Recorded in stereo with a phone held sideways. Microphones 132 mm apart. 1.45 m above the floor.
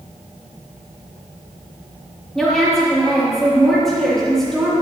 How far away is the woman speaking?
About 2.5 m.